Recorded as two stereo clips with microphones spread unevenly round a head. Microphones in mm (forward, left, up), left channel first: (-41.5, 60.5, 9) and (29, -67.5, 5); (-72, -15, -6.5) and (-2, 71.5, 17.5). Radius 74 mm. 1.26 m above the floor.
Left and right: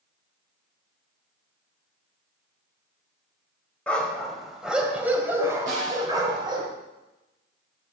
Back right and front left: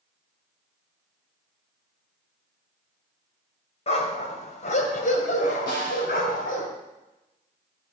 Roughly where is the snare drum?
Right.